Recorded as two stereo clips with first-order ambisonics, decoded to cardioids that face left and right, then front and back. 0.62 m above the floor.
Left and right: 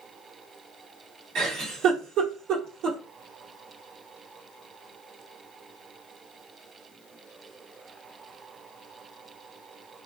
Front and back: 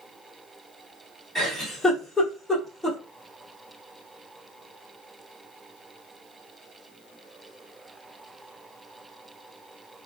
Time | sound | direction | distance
1.4 | a giggle | 90° right | 1.6 m